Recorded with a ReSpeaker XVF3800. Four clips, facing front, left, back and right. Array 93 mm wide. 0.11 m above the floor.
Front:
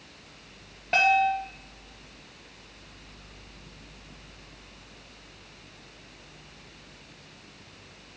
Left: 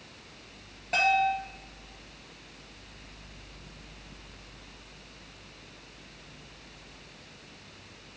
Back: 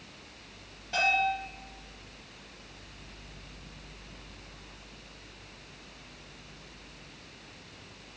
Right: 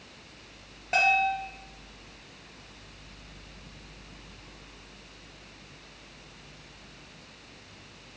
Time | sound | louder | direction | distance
0.9 | a bell | even, front 6 dB | 20° right | 1.9 m